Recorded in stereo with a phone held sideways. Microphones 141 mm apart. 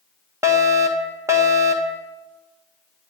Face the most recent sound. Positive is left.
turn(degrees=-20)  # may be behind; listen again after turning